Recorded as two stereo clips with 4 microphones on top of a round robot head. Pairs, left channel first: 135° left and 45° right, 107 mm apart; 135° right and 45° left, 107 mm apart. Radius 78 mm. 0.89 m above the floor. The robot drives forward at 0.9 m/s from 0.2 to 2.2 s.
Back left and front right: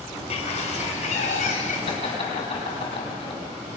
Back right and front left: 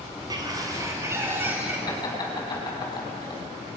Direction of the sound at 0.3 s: 100° left.